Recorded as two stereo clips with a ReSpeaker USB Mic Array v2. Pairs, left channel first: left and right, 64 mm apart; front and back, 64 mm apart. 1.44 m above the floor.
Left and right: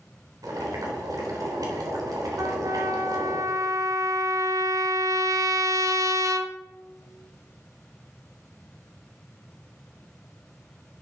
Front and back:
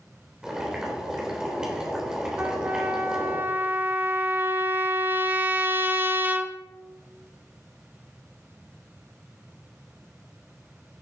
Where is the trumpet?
120° right, 1.0 m.